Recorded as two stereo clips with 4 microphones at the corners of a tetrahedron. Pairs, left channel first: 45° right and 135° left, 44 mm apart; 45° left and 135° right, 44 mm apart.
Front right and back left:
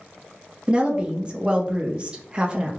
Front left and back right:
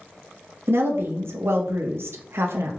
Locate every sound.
0.7 s a woman speaking: 160° right, 0.6 m